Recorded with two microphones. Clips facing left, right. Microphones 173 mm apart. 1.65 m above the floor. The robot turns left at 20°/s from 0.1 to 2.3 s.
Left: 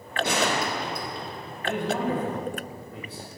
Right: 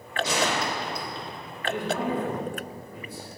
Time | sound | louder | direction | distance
0.2 | a gunshot | left 1 dB | 60° left (ahead or behind) | 1.5 m
1.6 | a man speaking | left 1 dB | 60° left (ahead or behind) | 2 m